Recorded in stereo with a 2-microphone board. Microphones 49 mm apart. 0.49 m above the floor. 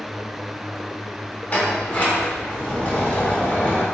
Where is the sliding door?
30° left (ahead or behind), 0.8 m.